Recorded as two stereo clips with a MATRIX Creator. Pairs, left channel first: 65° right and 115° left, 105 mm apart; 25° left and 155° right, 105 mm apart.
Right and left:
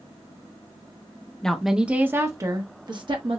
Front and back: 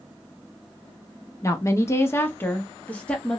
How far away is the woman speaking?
About 0.7 m.